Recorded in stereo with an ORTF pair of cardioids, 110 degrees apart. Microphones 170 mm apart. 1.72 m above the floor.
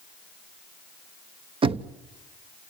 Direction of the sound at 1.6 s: 35° right.